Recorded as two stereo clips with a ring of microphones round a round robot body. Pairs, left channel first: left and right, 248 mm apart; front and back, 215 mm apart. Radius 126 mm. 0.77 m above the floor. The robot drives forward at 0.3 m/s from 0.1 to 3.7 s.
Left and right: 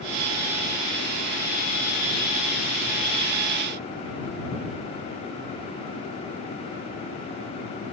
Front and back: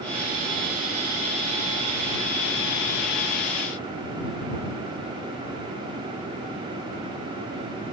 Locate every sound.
Only background noise.